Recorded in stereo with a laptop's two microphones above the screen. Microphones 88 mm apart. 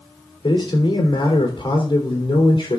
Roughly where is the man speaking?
Left.